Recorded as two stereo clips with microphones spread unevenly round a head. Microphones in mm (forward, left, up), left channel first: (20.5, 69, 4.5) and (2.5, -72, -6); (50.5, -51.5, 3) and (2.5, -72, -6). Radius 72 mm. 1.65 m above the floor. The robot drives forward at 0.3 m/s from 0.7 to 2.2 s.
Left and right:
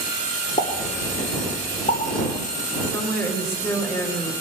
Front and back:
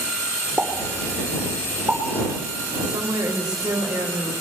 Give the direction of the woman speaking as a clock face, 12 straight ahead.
7 o'clock.